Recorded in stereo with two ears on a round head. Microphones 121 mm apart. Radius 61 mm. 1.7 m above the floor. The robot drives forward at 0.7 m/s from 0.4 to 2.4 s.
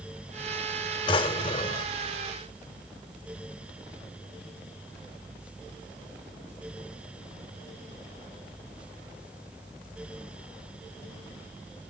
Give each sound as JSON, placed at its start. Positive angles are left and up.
{"t": 1.1, "sound": "a drawer", "side_deg": 40, "distance_m": 1.9}